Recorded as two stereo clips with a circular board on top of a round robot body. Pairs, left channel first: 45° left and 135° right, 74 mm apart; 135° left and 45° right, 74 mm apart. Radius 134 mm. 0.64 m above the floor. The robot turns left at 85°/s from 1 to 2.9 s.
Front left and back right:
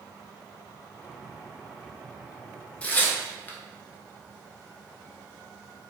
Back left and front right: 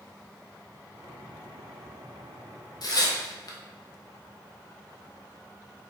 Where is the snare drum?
No snare drum in this recording.